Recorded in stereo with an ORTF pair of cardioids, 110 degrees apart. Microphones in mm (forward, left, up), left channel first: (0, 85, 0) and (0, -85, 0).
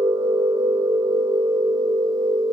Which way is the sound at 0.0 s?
25° right.